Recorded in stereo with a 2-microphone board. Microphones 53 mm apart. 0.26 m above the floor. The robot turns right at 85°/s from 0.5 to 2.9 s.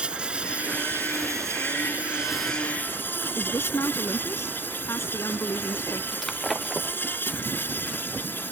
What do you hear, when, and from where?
0.0 s an insect: 160° right; by 8.5 s 45° left
3.4 s a woman speaking: 65° left (ahead or behind)
6.1 s breaking glass: centre (ahead or behind)